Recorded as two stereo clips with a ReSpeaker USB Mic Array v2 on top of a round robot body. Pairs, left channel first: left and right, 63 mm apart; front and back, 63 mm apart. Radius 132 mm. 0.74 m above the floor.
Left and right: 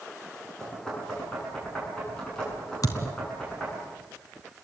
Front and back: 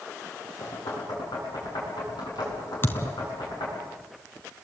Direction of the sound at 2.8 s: 60° left.